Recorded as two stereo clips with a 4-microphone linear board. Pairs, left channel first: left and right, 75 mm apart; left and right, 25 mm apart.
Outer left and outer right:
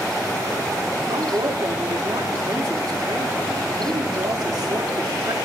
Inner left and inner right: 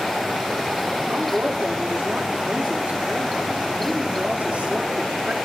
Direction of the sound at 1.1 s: 80° right.